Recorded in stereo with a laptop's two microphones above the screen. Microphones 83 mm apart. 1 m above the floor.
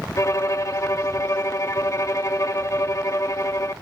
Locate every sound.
0.2 s a violin: 40° left (ahead or behind), 0.7 m